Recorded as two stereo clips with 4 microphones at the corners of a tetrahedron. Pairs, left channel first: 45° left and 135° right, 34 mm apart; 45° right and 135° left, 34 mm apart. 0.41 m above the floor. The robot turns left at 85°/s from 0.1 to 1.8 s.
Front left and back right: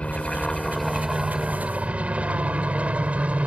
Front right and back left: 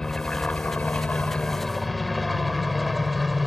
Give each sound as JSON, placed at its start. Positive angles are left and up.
{"t": 0.0, "sound": "a helicopter", "azimuth_deg": 20}